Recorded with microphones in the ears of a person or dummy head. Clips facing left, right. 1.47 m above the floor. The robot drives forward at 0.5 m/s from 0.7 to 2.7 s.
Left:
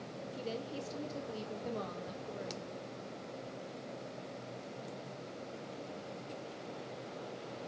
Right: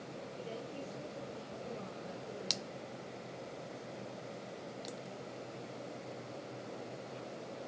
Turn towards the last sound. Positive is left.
turn(degrees=65)  # may be behind; listen again after turning